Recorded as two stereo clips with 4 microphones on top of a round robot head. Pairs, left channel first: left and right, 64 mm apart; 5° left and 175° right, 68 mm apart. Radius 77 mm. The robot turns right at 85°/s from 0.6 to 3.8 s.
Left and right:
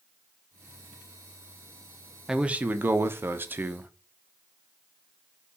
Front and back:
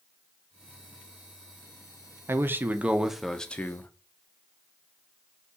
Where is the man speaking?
165° right, 0.6 m; by 3.9 s 35° right, 0.6 m.